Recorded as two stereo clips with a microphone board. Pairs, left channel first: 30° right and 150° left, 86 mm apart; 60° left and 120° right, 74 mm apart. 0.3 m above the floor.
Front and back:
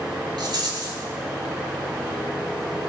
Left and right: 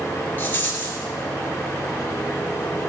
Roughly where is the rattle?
Behind left.